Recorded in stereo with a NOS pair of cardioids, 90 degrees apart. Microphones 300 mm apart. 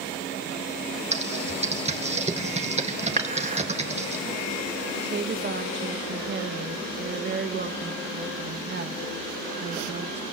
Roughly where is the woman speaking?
Ahead right.